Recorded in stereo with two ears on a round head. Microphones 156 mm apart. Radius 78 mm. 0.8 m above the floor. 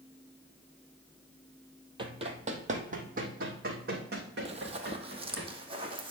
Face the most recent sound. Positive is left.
turn(degrees=-30)  # may be behind; listen again after turning